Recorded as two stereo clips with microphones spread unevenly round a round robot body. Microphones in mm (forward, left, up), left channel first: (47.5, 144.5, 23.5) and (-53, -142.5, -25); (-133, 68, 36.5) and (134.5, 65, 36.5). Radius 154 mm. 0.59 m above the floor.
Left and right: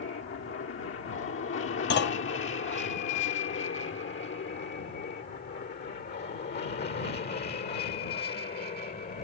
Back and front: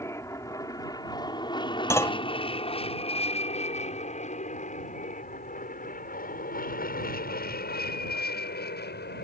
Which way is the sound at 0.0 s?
105° left.